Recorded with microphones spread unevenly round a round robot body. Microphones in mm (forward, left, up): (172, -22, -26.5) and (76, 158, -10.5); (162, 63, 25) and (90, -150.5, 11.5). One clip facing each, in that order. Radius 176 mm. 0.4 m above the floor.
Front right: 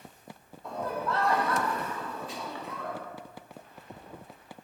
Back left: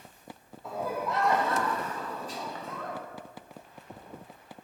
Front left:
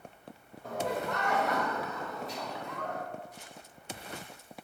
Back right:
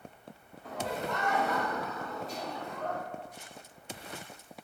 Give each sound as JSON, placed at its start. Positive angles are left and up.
{"t": 0.6, "sound": "laughter", "azimuth_deg": 30, "distance_m": 2.0}